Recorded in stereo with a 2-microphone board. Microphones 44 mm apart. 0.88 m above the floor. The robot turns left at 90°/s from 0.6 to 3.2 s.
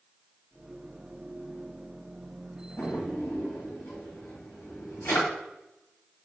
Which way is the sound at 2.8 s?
60° left (ahead or behind).